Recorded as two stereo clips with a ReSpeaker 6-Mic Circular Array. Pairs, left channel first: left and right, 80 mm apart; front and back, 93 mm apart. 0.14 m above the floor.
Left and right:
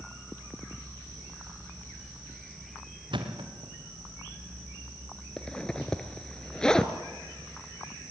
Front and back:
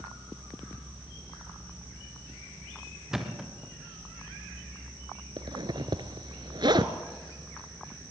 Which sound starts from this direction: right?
A thud, at 3.1 s.